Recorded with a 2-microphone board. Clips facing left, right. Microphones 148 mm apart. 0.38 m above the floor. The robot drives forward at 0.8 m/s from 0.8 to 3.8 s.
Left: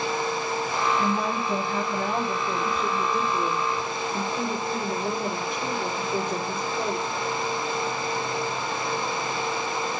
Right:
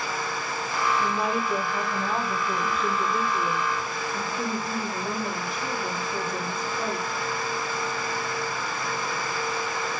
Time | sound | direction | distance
1.0 | a woman speaking | 50° left (ahead or behind) | 5.5 m